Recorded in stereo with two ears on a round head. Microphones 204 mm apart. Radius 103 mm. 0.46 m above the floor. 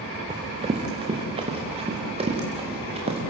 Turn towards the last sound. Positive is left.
turn(degrees=-25)  # may be behind; listen again after turning